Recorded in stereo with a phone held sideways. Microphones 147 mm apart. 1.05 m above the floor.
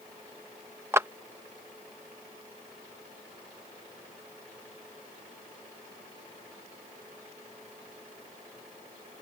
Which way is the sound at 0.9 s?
15° right (ahead or behind).